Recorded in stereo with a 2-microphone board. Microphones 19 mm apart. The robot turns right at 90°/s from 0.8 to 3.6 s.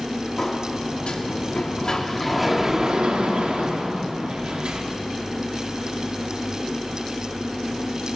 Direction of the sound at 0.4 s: 40° left.